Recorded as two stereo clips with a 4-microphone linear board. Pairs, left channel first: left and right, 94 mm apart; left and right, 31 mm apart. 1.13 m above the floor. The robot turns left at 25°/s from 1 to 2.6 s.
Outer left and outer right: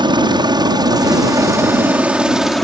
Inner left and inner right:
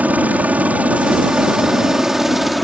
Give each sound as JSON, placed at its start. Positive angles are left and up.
{"t": 0.0, "sound": "a helicopter", "side_deg": -60}